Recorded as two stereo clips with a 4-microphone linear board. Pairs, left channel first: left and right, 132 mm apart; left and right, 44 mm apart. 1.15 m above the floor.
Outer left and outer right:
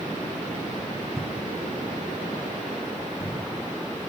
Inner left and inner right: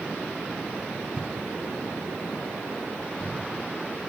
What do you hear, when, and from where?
1.2 s footsteps: 20° right (ahead or behind), 1.4 m; by 3.4 s 25° left (ahead or behind), 3.5 m